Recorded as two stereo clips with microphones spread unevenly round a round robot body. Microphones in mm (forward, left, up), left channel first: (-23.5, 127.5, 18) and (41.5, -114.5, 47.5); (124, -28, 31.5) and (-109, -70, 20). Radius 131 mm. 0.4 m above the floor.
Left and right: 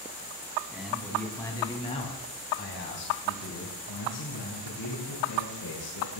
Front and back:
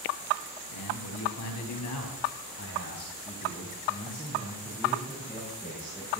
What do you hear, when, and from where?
0.7 s a man speaking: 15° left, 4.5 m; by 6.2 s 110° left, 6.5 m